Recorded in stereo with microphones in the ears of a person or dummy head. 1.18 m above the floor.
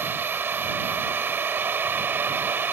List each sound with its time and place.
0.0 s a machine running: 10° right (ahead or behind)